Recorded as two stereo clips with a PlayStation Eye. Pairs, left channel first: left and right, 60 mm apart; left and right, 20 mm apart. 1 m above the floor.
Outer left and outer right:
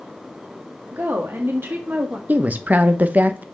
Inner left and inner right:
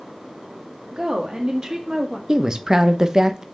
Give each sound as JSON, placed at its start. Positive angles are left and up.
{"t": 0.9, "sound": "a woman speaking", "side_deg": -45, "distance_m": 2.0}
{"t": 2.3, "sound": "a woman speaking", "side_deg": -25, "distance_m": 0.8}